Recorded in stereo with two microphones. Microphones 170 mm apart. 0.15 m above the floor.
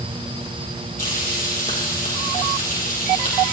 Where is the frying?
55° left (ahead or behind), 4 m.